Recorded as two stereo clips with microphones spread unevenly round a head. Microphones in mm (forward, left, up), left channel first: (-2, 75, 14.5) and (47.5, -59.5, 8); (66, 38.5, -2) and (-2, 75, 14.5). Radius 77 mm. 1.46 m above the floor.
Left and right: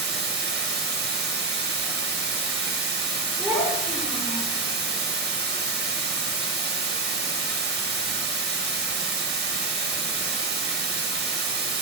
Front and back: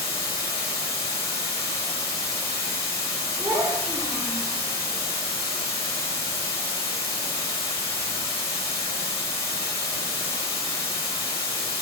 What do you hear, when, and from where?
0.0 s running water: 60° right, 1.3 m
3.4 s a child speaking: 155° right, 4 m